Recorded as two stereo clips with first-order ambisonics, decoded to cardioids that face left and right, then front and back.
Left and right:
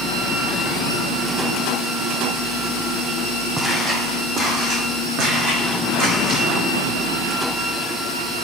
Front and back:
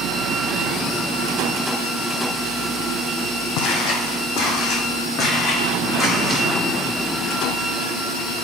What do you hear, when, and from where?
3.6 s footsteps: 10° right, 1.6 m; by 6.5 s 75° right, 2.5 m